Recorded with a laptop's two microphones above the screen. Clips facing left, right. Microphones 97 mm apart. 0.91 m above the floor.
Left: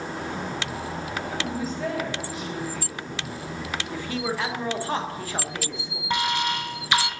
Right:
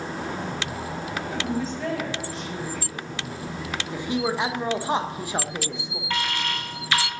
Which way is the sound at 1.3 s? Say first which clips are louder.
Right 3 dB; 5° left (ahead or behind).